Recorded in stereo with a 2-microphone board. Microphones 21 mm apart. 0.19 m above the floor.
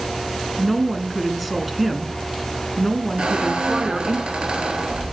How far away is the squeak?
About 2.5 m.